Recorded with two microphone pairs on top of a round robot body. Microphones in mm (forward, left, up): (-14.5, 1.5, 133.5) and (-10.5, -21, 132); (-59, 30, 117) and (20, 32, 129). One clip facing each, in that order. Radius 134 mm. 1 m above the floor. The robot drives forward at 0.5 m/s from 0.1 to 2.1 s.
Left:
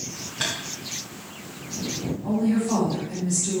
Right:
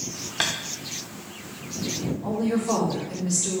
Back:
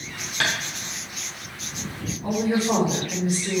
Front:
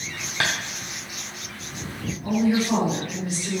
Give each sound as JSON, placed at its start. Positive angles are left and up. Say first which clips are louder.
{"t": 0.4, "sound": "tapping", "louder": "right 2 dB, even", "azimuth_deg": -55, "distance_m": 0.7}
{"t": 2.2, "sound": "a woman speaking", "louder": "left 2 dB, front 1 dB", "azimuth_deg": -110, "distance_m": 4.0}